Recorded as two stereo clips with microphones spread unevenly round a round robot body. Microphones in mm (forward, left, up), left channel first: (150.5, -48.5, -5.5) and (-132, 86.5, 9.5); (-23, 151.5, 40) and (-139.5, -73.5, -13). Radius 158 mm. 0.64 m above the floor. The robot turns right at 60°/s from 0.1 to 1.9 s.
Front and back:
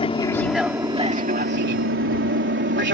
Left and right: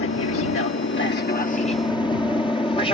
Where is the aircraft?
40° left; by 3.0 s 135° left.